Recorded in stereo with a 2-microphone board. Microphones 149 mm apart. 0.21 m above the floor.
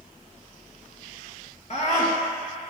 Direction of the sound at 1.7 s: 45° left (ahead or behind).